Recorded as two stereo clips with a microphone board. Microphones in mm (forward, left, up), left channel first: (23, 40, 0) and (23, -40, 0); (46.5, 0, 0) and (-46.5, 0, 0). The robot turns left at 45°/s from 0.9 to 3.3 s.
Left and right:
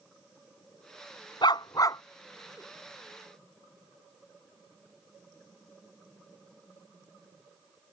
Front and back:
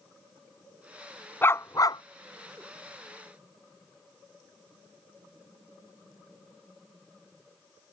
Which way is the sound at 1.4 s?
70° left.